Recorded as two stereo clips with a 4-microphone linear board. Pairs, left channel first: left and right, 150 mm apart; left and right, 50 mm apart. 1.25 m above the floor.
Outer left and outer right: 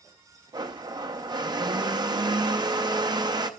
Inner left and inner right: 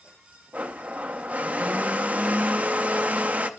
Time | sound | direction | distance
0.5 | a blender | 30° right (ahead or behind) | 0.6 m